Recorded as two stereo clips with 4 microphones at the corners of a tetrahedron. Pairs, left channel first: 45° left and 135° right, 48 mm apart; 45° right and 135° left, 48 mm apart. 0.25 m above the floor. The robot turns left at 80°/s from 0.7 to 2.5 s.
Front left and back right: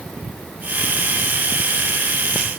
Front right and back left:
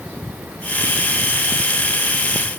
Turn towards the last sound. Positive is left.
No sound to turn to.